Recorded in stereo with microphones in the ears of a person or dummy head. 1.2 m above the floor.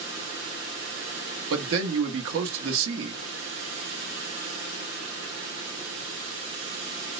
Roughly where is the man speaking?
Right.